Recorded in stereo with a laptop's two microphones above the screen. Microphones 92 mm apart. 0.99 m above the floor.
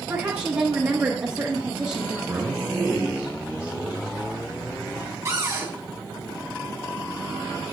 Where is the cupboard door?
35° right (ahead or behind), 3.5 m.